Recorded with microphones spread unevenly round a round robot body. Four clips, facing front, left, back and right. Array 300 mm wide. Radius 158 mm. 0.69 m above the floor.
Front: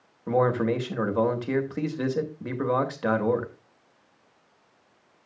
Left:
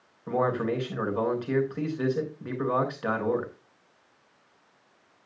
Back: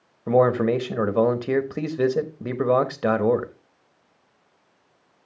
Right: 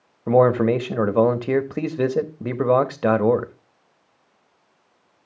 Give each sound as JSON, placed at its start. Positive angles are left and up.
{"t": 0.3, "sound": "a man speaking", "azimuth_deg": -110, "distance_m": 1.1}